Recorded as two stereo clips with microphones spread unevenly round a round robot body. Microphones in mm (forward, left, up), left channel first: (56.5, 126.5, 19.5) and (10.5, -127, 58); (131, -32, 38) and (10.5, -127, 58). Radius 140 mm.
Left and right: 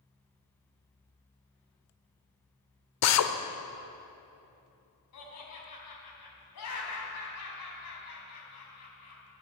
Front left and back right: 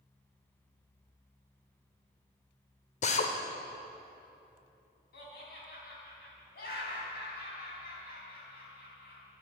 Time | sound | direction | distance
3.0 | a drill | 80° left | 0.8 m
5.1 | laughter | 65° left | 3.5 m